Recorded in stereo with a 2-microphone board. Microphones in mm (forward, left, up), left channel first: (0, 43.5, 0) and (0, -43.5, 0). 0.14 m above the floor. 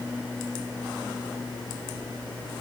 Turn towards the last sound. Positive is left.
No sound to turn to.